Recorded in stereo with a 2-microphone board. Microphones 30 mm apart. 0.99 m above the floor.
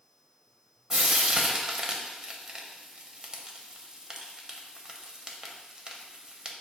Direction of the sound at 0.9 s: 20° right (ahead or behind).